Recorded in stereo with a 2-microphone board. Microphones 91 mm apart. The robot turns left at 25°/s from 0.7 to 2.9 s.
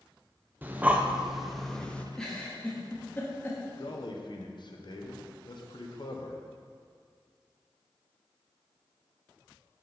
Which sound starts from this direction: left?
A man speaking, at 3.8 s.